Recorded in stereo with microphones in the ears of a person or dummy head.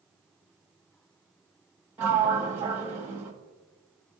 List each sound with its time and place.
2.0 s a sliding door: 10° right (ahead or behind), 1.0 m